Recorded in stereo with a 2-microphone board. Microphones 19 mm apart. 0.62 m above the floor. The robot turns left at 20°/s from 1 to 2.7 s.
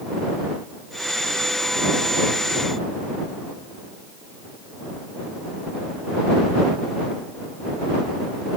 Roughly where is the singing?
No singing in this recording.